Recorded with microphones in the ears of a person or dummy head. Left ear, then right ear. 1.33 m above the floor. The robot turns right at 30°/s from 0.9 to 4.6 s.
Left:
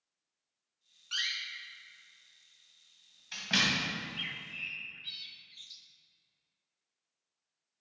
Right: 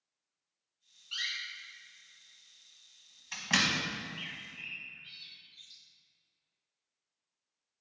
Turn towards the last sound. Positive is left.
turn(degrees=25)  # may be behind; listen again after turning